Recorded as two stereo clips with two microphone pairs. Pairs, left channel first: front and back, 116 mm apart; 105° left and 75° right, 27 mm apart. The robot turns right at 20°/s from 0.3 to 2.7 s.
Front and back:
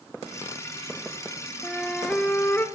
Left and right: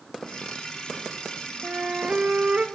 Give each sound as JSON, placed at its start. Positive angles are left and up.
{"t": 1.6, "sound": "a flute", "azimuth_deg": -85, "distance_m": 0.9}